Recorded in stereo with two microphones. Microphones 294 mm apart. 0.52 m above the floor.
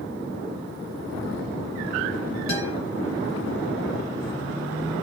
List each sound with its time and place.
2.5 s a guitar: 80° left, 5.5 m